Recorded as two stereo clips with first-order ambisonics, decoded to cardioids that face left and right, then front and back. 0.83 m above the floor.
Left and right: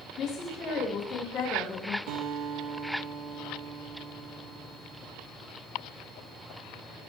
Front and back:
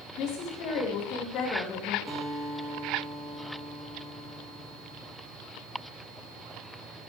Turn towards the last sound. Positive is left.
turn(degrees=-85)